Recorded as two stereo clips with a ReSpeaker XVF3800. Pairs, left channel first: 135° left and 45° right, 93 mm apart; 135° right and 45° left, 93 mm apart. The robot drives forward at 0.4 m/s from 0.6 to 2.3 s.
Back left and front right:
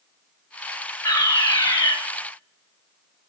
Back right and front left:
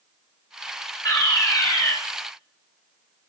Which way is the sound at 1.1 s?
Straight behind.